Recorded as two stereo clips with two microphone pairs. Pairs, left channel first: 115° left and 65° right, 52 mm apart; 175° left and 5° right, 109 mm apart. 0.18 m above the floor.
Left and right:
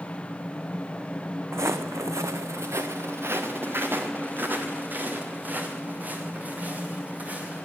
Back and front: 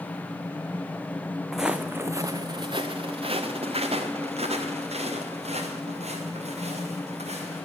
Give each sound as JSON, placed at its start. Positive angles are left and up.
{"t": 1.5, "sound": "footsteps", "azimuth_deg": -95, "distance_m": 0.9}